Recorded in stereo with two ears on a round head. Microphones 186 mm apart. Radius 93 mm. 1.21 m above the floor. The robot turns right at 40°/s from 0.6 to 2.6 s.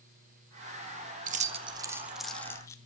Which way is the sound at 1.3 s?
40° right (ahead or behind).